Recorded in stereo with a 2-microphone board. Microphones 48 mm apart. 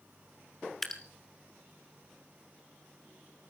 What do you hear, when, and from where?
0.8 s dripping: 5° left (ahead or behind), 1.5 m